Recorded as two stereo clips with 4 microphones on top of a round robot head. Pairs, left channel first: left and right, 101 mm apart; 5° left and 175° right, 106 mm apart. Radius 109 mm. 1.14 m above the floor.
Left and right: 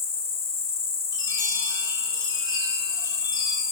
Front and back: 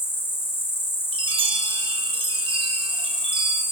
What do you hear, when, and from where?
0.0 s an insect: 75° left, 2.5 m
1.1 s a chime: 150° left, 4.5 m